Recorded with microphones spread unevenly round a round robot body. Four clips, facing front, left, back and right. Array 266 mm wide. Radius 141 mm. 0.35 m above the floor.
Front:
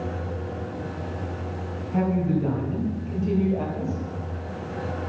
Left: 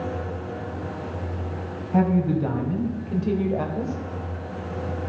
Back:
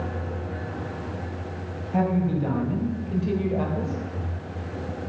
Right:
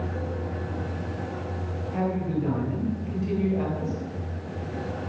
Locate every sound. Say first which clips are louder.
1.9 s a woman speaking: left 6 dB, even; 105° left, 2.5 m